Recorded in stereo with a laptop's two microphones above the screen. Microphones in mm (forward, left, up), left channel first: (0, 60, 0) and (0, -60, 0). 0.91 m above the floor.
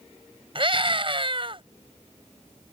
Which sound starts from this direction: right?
A scream, at 0.6 s.